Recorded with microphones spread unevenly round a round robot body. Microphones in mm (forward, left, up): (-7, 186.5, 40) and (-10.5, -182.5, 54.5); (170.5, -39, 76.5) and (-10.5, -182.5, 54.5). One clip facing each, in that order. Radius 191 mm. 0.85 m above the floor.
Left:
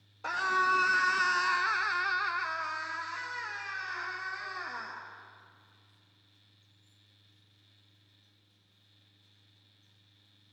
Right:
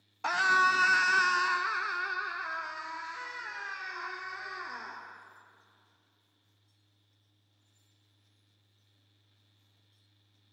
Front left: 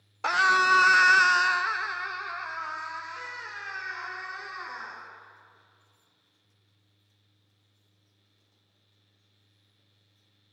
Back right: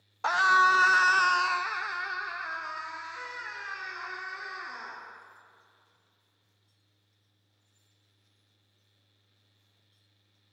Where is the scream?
25° right, 1.0 m; by 5.0 s 150° left, 2.5 m.